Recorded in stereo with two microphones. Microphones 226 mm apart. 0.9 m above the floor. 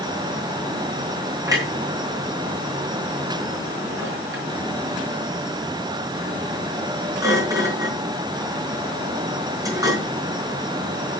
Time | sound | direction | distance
1.5 | a clunk | 15° right (ahead or behind) | 5 m